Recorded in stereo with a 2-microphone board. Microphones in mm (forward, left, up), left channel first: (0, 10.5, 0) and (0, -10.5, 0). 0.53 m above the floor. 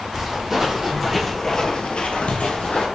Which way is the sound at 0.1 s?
20° right (ahead or behind).